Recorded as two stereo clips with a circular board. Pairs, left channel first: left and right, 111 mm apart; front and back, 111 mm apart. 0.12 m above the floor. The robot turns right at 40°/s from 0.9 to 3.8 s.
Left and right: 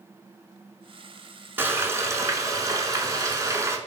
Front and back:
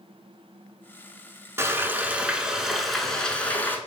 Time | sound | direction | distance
1.6 | frying | 140° right | 0.7 m